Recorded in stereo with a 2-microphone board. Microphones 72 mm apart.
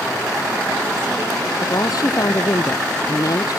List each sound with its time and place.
1.6 s a woman speaking: 55° left (ahead or behind)